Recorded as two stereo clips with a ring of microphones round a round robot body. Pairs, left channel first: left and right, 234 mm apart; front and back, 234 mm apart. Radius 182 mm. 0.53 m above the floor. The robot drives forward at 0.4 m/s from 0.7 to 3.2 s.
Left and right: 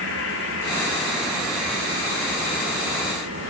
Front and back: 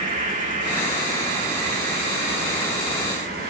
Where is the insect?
125° left, 5 m; by 3.5 s 130° left, 5.5 m.